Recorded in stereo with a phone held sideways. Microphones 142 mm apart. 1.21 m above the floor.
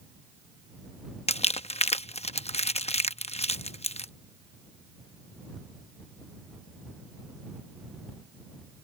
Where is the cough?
No cough in this recording.